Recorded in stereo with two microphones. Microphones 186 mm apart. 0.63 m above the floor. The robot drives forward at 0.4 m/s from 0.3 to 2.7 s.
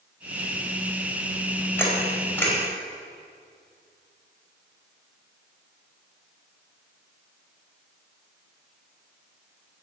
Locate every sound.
1.8 s a camera shutter: 10° left (ahead or behind), 3.5 m